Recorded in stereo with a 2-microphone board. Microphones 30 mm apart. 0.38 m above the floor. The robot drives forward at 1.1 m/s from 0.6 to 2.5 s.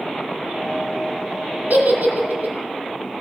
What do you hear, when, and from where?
1.7 s a giggle: 70° right (ahead or behind), 2.5 m; by 2.5 s 55° right (ahead or behind), 3 m